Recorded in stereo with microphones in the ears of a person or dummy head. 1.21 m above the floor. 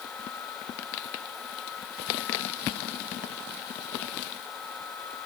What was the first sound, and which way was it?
Only background noise.